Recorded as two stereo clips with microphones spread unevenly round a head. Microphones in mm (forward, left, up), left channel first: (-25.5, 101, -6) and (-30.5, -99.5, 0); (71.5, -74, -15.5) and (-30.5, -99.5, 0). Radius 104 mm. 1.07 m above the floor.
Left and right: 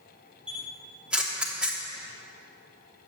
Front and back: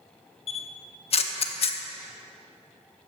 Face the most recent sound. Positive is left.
turn(degrees=-10)